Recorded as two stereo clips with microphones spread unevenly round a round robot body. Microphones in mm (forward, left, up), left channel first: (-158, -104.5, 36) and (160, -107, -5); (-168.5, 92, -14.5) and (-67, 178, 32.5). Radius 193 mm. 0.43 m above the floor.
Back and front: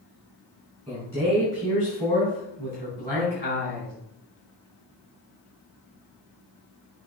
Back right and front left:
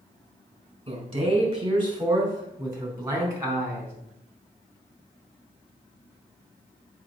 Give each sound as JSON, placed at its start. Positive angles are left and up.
{"t": 0.9, "sound": "a man speaking", "azimuth_deg": 90, "distance_m": 4.5}